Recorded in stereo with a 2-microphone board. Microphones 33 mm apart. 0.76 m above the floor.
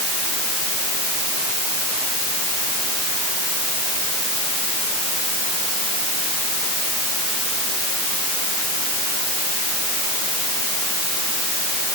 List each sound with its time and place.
Only background noise.